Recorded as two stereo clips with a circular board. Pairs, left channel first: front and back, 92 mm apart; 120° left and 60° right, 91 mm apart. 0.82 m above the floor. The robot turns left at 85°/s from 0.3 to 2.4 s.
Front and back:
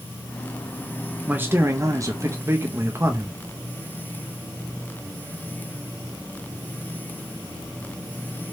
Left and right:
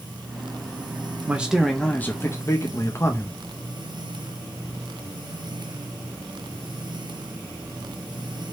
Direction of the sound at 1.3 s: 120° right.